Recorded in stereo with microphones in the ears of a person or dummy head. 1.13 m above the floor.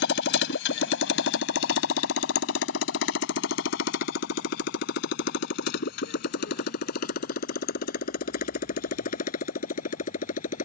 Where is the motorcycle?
70° left (ahead or behind); by 10.7 s 55° left (ahead or behind).